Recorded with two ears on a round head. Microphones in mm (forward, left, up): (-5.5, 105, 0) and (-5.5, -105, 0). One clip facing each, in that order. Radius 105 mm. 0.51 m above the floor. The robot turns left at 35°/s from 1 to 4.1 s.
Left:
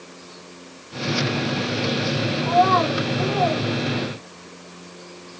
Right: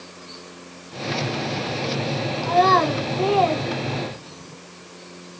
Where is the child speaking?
30° right (ahead or behind), 1.0 m; by 4.5 s 80° right, 1.0 m.